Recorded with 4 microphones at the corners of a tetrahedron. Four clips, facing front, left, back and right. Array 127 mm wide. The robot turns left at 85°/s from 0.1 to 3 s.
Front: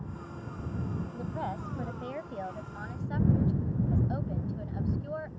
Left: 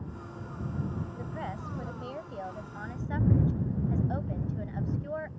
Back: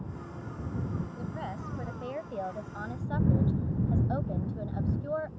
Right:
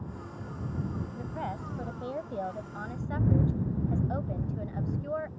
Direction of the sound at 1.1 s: 10° right.